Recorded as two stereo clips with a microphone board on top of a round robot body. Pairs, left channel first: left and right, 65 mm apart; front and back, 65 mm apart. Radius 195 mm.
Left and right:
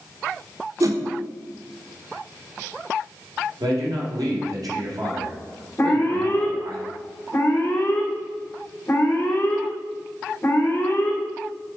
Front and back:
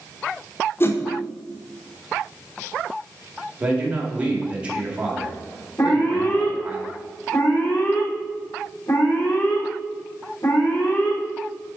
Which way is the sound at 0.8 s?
55° right.